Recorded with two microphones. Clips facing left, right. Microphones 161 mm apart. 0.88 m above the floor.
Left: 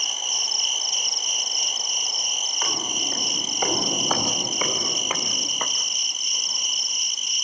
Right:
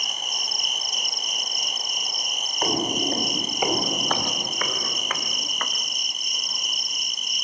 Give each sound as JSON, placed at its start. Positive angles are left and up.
{"t": 0.0, "sound": "an insect", "side_deg": -55, "distance_m": 1.6}
{"t": 2.6, "sound": "footsteps", "side_deg": -40, "distance_m": 1.4}